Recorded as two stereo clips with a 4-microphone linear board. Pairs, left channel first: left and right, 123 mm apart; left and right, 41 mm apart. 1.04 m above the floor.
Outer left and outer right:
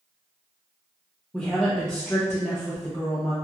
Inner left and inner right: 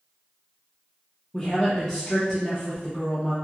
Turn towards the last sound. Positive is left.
turn(degrees=5)  # may be behind; listen again after turning